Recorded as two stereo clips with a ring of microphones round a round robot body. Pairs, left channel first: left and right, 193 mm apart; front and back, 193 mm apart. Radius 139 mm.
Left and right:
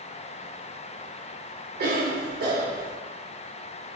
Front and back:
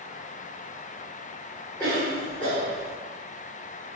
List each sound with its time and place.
1.8 s a cough: 80° right, 1.1 m